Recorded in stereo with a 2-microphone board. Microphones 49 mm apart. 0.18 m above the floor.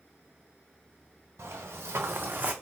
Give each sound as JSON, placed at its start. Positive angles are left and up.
{"t": 1.4, "sound": "footsteps", "side_deg": -80, "distance_m": 1.4}